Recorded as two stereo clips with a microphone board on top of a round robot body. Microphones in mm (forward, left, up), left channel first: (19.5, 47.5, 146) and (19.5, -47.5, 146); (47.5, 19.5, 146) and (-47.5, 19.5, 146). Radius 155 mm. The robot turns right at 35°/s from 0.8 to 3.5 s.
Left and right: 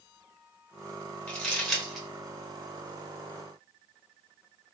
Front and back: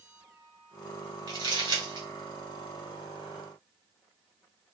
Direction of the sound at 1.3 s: 160° left.